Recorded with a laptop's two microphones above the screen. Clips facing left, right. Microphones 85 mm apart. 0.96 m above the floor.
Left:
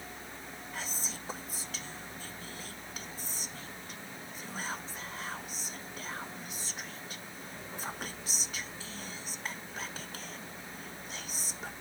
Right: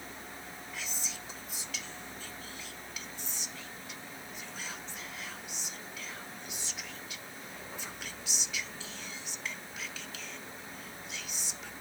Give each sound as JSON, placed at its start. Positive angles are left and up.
{"t": 0.7, "sound": "whispering", "side_deg": 40}